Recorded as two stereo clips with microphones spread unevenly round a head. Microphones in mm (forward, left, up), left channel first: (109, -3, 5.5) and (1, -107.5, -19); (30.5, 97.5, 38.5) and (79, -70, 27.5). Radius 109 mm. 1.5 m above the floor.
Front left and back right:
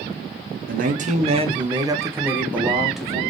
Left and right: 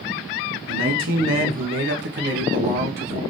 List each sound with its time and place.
0.7 s a man speaking: 110° right, 0.7 m; by 3.2 s 45° right, 1.5 m